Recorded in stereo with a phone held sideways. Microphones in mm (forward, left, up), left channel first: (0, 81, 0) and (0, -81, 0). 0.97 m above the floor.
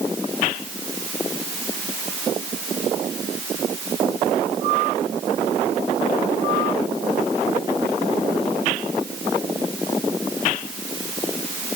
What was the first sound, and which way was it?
Only background noise.